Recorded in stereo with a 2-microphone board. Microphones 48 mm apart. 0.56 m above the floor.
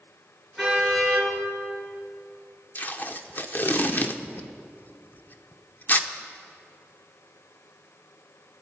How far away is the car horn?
About 5.5 m.